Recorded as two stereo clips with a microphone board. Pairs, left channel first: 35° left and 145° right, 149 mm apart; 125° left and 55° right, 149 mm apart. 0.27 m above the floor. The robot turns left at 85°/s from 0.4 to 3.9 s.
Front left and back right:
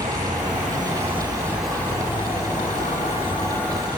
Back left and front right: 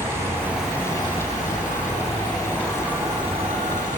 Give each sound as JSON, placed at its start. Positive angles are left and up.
{"t": 0.0, "sound": "an insect", "azimuth_deg": -125, "distance_m": 2.5}